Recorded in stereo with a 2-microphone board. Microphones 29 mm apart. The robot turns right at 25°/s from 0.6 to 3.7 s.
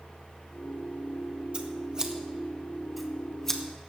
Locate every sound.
1.5 s scissors: 40° right (ahead or behind), 1.5 m; by 3.6 s 10° left (ahead or behind), 1.5 m